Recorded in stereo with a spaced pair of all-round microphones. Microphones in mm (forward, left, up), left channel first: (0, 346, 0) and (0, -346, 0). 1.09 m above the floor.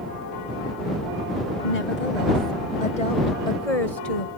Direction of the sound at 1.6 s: 70° left (ahead or behind).